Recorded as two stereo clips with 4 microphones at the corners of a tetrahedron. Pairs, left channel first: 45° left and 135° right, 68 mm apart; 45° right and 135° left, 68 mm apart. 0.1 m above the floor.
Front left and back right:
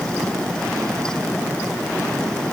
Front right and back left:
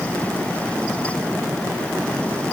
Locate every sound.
Only background noise.